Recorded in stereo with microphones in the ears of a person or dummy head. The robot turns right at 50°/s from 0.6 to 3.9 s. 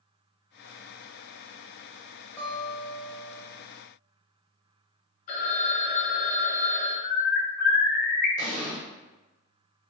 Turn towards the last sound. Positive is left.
turn(degrees=45)  # may be behind; listen again after turning